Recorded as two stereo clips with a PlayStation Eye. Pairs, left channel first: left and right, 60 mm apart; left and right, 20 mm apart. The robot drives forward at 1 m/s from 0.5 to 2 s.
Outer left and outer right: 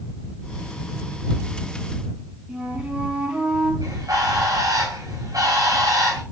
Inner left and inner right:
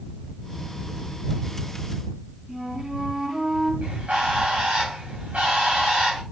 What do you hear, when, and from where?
2.5 s a flute: 15° right (ahead or behind), 2.5 m
3.8 s a bird: 70° right (ahead or behind), 6 m